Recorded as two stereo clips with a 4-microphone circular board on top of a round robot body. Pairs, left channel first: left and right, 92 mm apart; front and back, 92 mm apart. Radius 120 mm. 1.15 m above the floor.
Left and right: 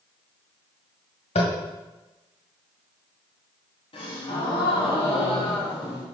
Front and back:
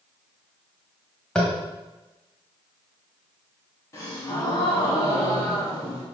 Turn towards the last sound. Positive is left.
turn(degrees=60)